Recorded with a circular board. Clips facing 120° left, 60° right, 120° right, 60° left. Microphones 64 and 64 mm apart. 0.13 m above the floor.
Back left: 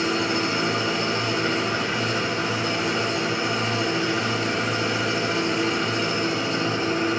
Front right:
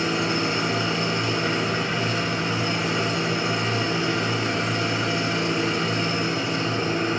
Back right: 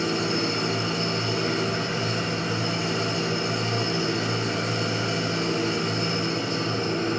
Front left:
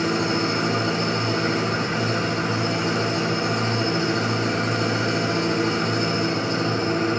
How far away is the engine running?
About 6.5 m.